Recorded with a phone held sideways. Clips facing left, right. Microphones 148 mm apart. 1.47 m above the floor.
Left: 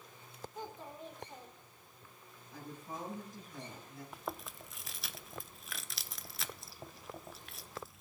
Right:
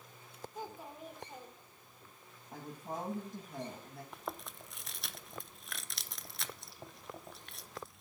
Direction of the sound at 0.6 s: 10° right (ahead or behind).